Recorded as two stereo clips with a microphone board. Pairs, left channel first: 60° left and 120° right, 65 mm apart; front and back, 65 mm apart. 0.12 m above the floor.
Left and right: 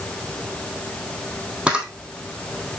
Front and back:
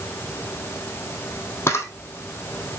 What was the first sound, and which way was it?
A camera shutter, 45° right.